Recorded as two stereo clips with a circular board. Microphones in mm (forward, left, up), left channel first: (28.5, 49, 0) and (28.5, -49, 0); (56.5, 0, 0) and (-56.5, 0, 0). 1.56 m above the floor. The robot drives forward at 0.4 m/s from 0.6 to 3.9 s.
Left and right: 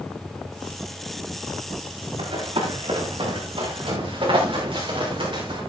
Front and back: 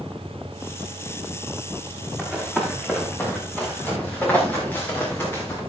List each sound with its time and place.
2.2 s running footsteps: 80° right, 6 m; by 5.6 s 65° right, 8.5 m